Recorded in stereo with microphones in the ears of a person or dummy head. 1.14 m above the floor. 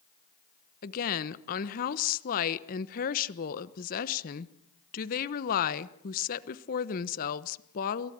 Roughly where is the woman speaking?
Left.